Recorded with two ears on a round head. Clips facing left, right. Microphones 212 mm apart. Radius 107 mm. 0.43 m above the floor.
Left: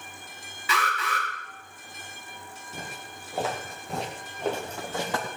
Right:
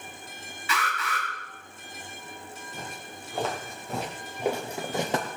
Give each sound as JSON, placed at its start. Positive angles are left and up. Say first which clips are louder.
{"t": 0.7, "sound": "an alarm", "louder": "left 2 dB", "side_deg": 65, "distance_m": 6.0}
{"t": 2.7, "sound": "footsteps", "louder": "left 2 dB", "side_deg": 10, "distance_m": 4.0}